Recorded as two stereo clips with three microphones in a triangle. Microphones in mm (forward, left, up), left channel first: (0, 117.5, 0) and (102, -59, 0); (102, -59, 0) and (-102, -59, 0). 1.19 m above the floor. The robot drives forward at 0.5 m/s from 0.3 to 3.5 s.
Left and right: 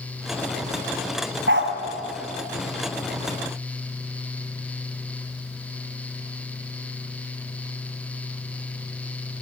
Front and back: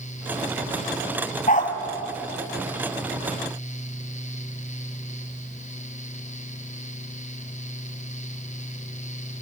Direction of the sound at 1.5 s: 45° right.